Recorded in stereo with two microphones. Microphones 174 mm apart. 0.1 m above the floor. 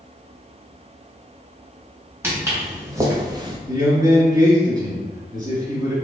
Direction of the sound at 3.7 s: 25° right (ahead or behind).